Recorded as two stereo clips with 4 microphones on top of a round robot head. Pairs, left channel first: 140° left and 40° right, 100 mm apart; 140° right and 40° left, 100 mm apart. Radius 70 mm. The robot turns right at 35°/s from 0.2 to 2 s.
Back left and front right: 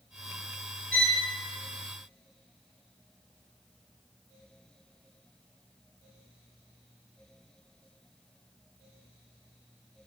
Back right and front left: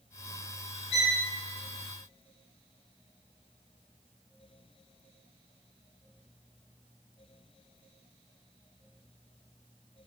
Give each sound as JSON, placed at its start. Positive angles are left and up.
{"t": 0.9, "sound": "a violin", "azimuth_deg": -145, "distance_m": 2.5}